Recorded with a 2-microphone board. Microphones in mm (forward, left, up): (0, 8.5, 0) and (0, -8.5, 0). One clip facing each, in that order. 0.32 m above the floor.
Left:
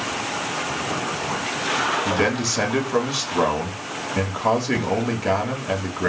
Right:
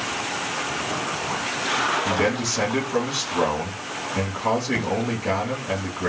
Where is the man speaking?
20° left (ahead or behind), 1.2 m.